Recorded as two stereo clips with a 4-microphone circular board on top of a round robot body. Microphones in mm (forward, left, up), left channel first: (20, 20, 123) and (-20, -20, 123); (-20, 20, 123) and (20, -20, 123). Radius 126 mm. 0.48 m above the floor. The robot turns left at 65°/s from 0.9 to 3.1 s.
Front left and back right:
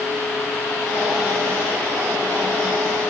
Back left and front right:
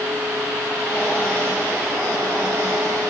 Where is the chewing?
No chewing in this recording.